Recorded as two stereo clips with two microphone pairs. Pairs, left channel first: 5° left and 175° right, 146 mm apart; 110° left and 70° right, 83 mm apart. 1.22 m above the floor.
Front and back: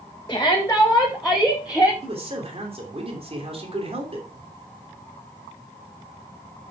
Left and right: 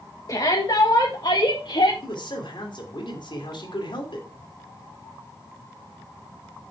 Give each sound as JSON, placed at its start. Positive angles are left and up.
{"t": 0.3, "sound": "a shout", "azimuth_deg": 70, "distance_m": 2.0}
{"t": 2.0, "sound": "a man speaking", "azimuth_deg": 135, "distance_m": 3.0}